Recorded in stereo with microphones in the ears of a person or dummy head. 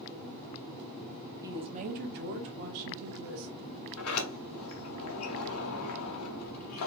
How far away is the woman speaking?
About 0.5 m.